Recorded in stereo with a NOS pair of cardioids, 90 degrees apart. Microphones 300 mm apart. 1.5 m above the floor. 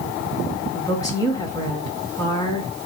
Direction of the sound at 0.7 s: 10° left.